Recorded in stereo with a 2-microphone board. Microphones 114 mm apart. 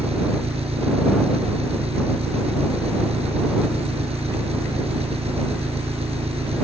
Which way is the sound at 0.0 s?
70° right (ahead or behind).